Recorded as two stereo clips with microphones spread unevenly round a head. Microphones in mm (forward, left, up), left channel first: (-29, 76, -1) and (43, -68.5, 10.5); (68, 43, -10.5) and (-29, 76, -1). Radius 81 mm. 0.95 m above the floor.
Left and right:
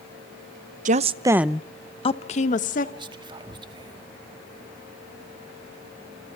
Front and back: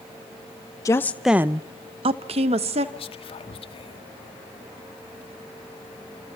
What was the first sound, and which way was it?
A woman speaking, 60° right.